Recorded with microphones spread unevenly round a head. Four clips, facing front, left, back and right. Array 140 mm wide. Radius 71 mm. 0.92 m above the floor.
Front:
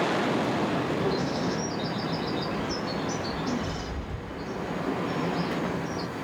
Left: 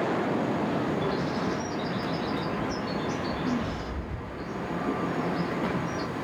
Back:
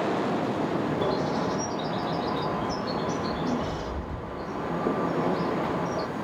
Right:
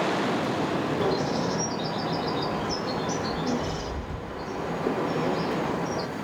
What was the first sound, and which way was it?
A bird, 135° right.